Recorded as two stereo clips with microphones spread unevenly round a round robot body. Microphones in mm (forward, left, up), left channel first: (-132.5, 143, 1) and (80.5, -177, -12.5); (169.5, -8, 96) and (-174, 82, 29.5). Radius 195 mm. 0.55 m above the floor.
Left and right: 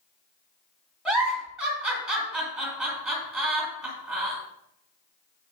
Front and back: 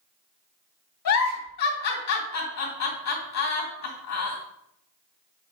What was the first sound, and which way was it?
A giggle, 35° left.